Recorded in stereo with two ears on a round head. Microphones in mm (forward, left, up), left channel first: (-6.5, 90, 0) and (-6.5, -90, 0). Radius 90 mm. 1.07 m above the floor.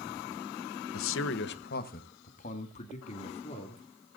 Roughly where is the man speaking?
Left.